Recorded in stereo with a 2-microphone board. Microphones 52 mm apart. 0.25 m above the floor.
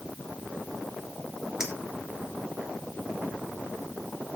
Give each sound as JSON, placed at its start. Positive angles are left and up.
{"t": 1.6, "sound": "a clink", "side_deg": -10, "distance_m": 3.5}